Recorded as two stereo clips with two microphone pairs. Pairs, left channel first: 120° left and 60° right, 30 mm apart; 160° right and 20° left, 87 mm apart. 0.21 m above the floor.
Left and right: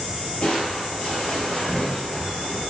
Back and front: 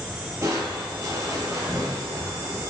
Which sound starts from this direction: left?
Crushing, at 0.4 s.